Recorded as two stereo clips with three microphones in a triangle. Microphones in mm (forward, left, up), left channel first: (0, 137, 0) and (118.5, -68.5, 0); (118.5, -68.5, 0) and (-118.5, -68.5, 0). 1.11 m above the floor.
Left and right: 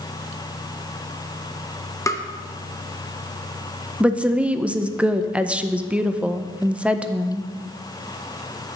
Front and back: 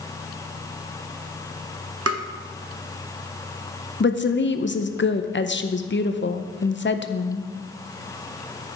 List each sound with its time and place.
2.1 s tapping: 165° right, 0.7 m
4.0 s a woman speaking: 25° left, 0.6 m